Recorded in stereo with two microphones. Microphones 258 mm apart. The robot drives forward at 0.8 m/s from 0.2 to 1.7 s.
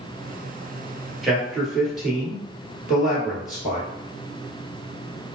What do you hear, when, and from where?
1.2 s a man speaking: centre (ahead or behind), 1.6 m